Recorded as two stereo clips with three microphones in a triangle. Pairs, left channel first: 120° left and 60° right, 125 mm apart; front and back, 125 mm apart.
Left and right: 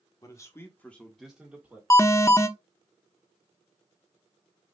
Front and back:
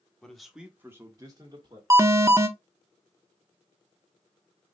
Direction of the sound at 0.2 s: 80° left.